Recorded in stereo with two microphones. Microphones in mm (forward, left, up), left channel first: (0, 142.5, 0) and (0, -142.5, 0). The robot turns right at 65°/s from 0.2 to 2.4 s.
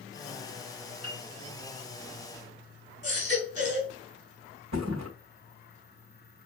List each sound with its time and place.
1.0 s a piano: 65° right (ahead or behind), 5 m; by 1.2 s 50° right (ahead or behind), 5 m
3.0 s a baby crying: 45° left (ahead or behind), 3.5 m
4.7 s a thud: 80° right, 2.5 m